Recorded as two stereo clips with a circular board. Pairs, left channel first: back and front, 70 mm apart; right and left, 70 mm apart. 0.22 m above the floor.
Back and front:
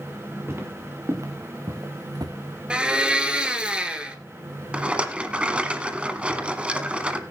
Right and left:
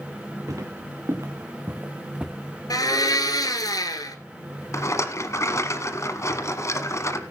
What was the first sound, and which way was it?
Footsteps, 55° left.